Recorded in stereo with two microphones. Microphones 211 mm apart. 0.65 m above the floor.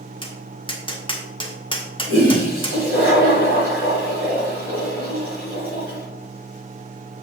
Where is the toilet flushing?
80° right, 4.5 m.